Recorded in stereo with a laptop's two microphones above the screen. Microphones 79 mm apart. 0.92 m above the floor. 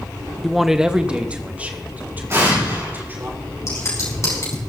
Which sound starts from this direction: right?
An explosion, at 2.3 s.